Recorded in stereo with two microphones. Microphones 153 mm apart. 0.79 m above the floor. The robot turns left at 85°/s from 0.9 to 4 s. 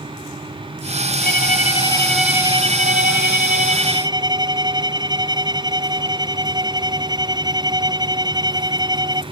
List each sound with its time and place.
1.2 s a violin: 85° left; by 9.2 s 155° right